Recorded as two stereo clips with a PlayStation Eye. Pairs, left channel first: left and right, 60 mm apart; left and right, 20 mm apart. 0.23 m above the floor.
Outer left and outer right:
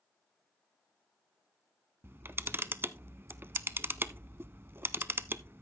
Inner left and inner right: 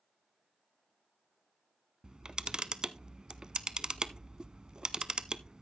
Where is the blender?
No blender in this recording.